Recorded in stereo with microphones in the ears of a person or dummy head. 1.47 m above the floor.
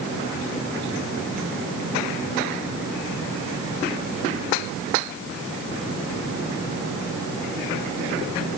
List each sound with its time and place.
Only background noise.